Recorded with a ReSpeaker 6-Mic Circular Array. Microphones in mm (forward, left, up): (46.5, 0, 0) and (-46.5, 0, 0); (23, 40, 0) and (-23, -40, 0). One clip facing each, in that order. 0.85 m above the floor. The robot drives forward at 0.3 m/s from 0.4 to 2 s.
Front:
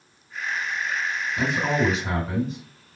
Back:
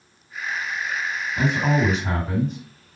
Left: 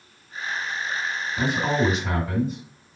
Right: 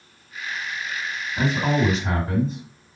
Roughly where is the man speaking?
Behind.